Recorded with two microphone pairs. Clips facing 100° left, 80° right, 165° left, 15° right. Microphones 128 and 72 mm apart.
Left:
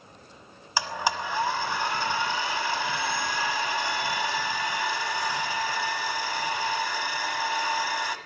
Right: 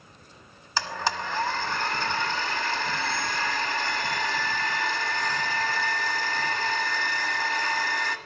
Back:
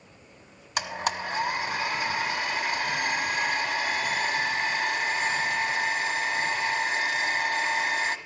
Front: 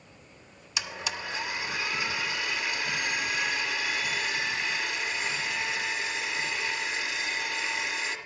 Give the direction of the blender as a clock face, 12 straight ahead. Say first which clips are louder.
Left 1 dB, back 6 dB; 6 o'clock.